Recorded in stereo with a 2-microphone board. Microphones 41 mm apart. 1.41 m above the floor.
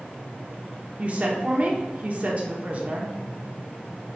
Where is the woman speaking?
35° right (ahead or behind), 0.7 m.